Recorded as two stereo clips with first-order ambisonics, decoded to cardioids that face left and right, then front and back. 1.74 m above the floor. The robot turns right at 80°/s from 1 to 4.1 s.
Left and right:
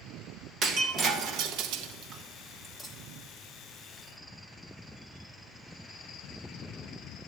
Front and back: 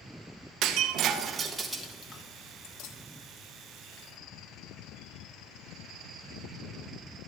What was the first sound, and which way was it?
Breaking glass, 145° right.